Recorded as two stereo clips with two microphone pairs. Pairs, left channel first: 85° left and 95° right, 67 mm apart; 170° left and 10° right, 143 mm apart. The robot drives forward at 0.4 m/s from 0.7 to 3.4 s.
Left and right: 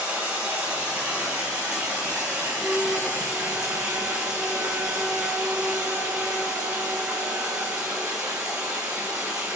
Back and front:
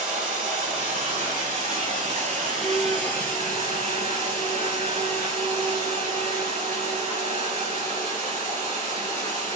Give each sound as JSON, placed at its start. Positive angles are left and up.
{"t": 0.0, "sound": "running water", "azimuth_deg": -35, "distance_m": 4.5}
{"t": 2.6, "sound": "a flute", "azimuth_deg": -20, "distance_m": 1.8}